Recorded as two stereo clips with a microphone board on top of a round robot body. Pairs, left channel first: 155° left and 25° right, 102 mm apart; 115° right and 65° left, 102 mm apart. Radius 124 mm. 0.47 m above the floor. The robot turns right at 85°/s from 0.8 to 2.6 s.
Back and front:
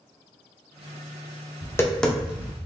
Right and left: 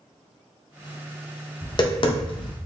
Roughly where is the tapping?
Behind right.